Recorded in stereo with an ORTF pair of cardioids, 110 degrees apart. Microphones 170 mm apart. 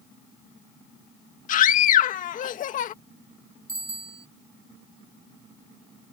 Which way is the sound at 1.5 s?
55° left.